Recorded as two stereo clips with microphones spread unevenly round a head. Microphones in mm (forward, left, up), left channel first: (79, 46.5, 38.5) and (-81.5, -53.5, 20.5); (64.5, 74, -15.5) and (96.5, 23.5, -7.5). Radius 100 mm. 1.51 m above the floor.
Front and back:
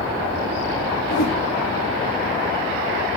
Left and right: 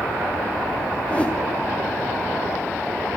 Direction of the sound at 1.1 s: 55° left.